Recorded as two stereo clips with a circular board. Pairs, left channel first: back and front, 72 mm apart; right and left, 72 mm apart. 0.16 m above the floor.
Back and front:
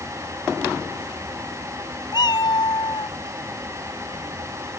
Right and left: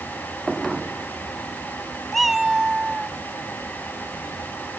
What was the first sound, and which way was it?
A cat meowing, 175° right.